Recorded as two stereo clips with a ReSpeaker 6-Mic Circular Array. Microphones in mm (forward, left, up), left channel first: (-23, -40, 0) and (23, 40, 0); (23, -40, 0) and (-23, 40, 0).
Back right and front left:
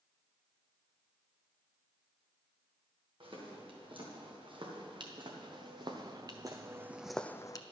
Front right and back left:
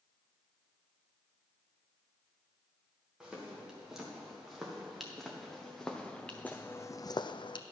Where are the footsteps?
35° left, 3.5 m; by 7.6 s 80° right, 0.6 m.